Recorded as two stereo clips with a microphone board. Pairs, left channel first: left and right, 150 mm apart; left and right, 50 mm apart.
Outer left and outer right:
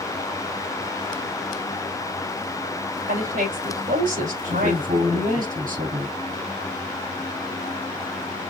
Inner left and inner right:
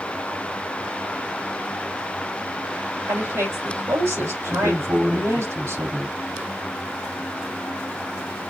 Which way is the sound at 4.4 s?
75° right (ahead or behind).